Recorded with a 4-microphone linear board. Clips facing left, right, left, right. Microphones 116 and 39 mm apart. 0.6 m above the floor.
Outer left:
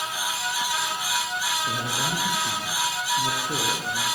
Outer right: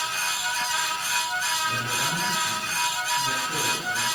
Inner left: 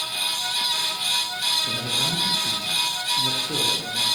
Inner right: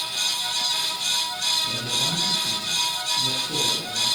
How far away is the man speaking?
About 9 m.